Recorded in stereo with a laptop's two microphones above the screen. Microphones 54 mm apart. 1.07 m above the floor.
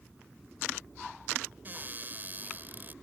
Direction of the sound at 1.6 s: 35° right (ahead or behind).